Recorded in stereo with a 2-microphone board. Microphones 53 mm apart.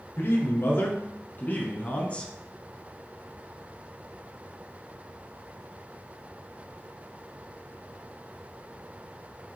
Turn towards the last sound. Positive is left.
turn(degrees=20)  # may be behind; listen again after turning